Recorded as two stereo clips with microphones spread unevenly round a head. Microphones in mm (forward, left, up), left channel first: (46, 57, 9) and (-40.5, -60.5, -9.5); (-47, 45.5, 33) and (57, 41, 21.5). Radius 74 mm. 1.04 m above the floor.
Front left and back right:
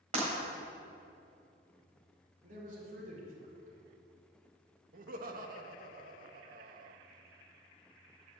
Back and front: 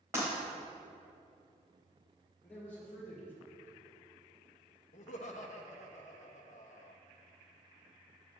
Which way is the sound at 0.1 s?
75° right.